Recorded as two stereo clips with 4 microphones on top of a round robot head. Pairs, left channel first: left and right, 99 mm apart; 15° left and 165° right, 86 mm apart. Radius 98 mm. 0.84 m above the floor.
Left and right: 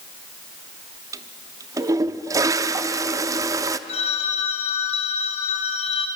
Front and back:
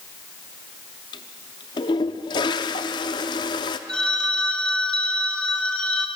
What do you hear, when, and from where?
1.1 s a toilet flushing: 35° right, 0.7 m
3.9 s a phone ringing: 90° left, 2.5 m